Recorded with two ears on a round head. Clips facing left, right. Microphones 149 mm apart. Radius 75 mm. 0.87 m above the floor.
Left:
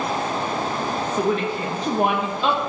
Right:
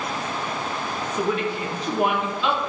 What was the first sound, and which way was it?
A woman speaking, 30° left (ahead or behind).